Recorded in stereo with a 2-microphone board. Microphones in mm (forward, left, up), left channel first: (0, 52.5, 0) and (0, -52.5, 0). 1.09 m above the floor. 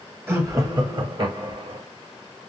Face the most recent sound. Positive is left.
turn(degrees=-55)  # may be behind; listen again after turning